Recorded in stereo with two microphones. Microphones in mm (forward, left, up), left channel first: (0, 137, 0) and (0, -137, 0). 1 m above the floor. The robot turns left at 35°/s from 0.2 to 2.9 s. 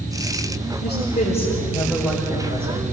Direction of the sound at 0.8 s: 45° left.